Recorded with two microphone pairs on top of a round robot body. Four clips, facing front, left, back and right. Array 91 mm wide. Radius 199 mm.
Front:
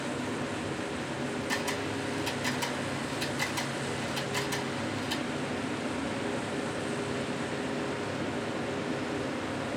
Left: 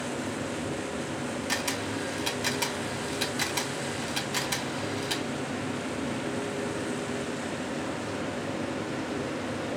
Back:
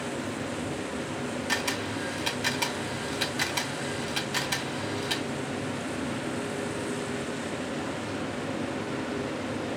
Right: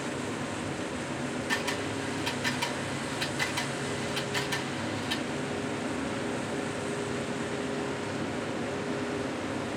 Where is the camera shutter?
170° left, 1.5 m.